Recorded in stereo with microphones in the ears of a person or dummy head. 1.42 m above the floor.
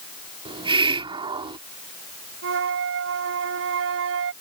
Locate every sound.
0.5 s a hiss: 25° right (ahead or behind)
2.4 s a flute: 75° right (ahead or behind)